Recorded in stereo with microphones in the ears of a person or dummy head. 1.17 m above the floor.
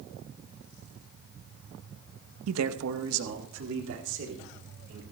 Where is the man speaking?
80° right, 0.7 m; by 5.0 s 65° right (ahead or behind), 3.5 m.